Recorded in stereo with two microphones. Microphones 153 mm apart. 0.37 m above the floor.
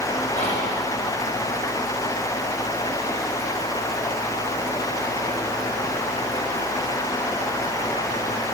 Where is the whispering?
50° left (ahead or behind), 1.9 m.